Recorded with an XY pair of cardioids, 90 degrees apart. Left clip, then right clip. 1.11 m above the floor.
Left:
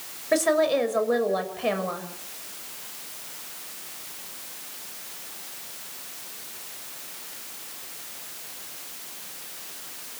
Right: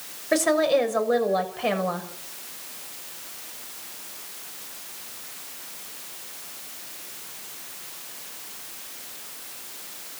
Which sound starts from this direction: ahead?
A woman speaking, at 0.3 s.